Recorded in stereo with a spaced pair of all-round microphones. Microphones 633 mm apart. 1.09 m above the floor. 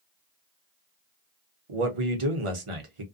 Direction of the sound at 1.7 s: 55° right (ahead or behind).